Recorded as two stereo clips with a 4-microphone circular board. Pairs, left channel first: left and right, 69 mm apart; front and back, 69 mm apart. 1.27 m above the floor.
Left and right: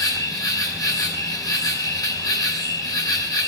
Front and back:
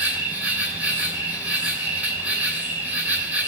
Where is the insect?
115° left, 3 m.